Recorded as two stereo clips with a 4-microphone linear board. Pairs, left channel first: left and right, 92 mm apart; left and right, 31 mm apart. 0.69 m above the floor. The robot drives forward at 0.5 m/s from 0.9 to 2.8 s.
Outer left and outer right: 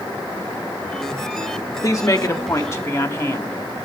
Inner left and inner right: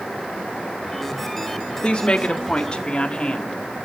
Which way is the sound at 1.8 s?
35° left (ahead or behind).